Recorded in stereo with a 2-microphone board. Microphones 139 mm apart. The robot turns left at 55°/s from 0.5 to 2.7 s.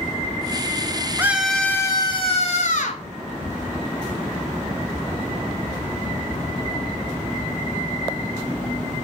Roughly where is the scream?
Behind.